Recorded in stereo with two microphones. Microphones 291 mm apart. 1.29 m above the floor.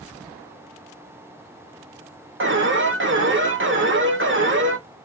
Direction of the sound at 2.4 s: 45° right (ahead or behind).